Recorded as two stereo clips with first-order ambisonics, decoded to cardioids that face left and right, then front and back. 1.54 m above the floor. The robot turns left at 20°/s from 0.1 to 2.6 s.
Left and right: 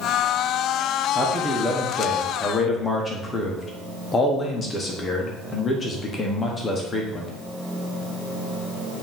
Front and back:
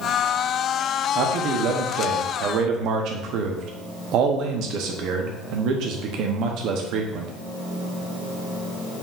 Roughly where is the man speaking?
Behind.